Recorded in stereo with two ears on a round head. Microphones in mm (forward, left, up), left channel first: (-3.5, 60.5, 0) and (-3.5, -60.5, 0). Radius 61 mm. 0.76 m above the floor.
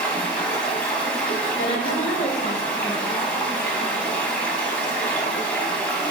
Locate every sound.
0.0 s running water: 10° left (ahead or behind), 0.7 m
1.6 s a woman speaking: 50° left (ahead or behind), 0.8 m